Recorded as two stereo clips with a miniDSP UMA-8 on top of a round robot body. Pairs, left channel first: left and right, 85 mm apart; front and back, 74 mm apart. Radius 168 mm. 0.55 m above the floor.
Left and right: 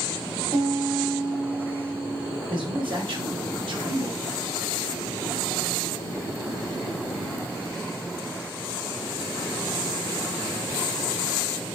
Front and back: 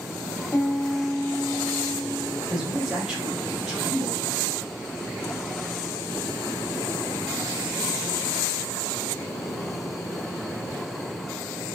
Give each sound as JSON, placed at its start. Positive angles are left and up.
{"t": 0.5, "sound": "a piano", "azimuth_deg": -65, "distance_m": 2.0}
{"t": 2.5, "sound": "a man speaking", "azimuth_deg": -95, "distance_m": 2.5}